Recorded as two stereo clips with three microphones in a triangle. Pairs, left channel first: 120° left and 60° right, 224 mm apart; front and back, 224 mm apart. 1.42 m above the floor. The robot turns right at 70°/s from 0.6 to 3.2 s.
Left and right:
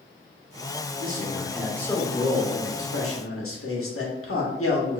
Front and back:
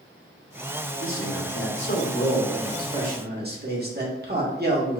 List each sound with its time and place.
1.0 s a man speaking: 20° right, 1.4 m; by 5.0 s 135° left, 1.4 m